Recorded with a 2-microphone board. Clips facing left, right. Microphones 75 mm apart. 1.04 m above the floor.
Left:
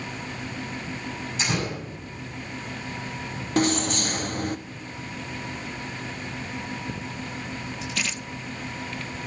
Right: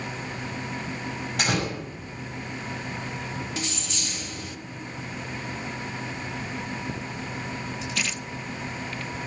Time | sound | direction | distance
1.4 | a door slam | 65° right (ahead or behind) | 6 m
3.6 | keys jangling | 50° left (ahead or behind) | 0.6 m